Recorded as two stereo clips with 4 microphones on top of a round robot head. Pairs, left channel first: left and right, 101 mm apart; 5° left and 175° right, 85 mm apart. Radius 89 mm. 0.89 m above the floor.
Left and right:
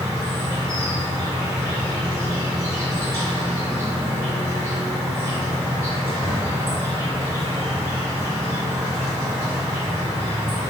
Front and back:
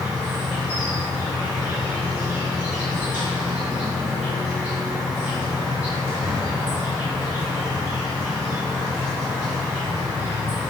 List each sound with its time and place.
0.0 s an insect: 115° right, 1.7 m